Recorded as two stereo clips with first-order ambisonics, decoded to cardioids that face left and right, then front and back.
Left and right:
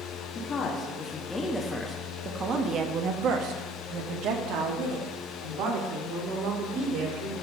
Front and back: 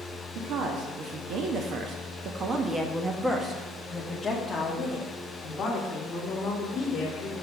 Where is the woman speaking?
145° left, 1.3 m; by 7.3 s 70° right, 3 m.